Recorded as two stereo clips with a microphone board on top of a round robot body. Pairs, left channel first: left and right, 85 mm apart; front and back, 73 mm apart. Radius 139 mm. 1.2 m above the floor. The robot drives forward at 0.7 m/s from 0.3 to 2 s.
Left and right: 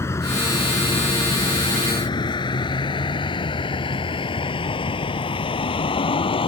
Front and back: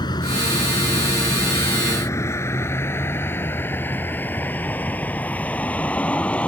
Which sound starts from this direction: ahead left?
A vehicle, at 0.0 s.